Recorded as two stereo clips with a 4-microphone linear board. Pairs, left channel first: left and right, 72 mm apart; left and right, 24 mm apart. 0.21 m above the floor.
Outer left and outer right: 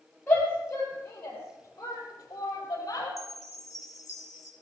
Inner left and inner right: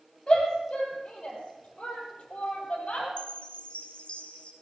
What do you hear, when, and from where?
0.3 s a shout: 20° left (ahead or behind), 7.5 m; by 3.1 s 55° left (ahead or behind), 8 m
3.2 s a chime: 45° left (ahead or behind), 2 m